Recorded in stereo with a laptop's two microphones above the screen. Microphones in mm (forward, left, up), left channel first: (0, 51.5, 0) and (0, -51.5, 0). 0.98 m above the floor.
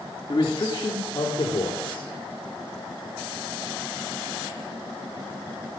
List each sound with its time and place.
0.3 s a man speaking: 45° left (ahead or behind), 2.5 m; by 2.1 s 55° left (ahead or behind), 3.5 m